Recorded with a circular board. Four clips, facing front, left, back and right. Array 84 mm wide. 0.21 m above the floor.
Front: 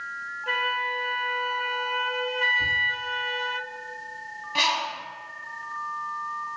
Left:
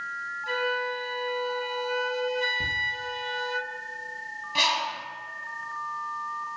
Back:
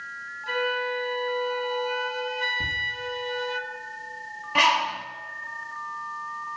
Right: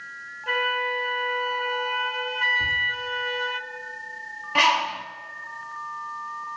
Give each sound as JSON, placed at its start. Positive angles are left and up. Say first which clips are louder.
{"t": 0.5, "sound": "a flute", "louder": "right 3 dB, back 1 dB", "azimuth_deg": -50, "distance_m": 0.5}
{"t": 2.6, "sound": "laughter", "louder": "right 4 dB, front 3 dB", "azimuth_deg": 135, "distance_m": 6.0}
{"t": 4.5, "sound": "a bird", "louder": "right 6 dB, back 5 dB", "azimuth_deg": -130, "distance_m": 0.8}